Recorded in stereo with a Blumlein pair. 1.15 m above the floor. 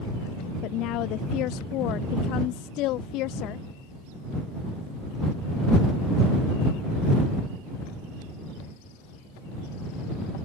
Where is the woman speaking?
40° left.